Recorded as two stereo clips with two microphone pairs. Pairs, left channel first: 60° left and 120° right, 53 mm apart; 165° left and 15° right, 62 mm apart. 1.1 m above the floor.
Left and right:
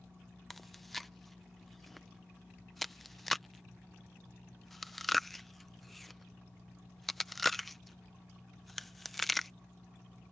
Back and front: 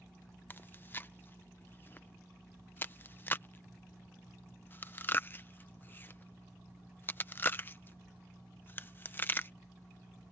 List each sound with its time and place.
0.5 s chewing: 140° left